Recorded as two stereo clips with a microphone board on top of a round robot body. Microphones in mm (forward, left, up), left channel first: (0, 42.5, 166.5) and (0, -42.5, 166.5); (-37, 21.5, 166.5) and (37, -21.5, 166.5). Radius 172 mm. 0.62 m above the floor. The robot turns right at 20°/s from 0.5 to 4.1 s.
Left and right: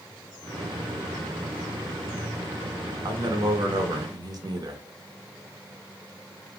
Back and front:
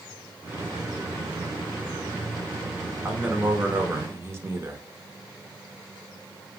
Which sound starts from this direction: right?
A man speaking, at 3.0 s.